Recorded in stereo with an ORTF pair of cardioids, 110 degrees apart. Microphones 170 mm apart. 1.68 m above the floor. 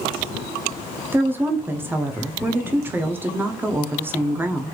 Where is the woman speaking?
10° right, 0.6 m.